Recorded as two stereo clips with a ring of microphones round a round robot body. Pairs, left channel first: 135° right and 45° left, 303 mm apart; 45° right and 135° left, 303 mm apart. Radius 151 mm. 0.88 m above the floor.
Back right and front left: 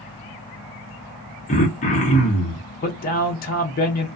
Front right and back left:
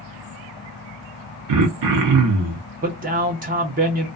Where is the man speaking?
Straight behind, 0.6 m.